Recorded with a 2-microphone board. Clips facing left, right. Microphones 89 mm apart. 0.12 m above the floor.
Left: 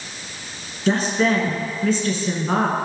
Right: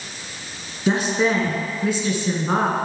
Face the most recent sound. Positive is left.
turn(degrees=-15)  # may be behind; listen again after turning